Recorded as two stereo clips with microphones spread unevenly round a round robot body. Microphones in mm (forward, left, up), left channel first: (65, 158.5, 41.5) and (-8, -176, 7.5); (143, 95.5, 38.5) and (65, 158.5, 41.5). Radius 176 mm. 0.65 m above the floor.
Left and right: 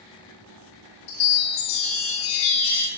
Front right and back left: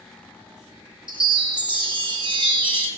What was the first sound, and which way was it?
A chime, 105° left.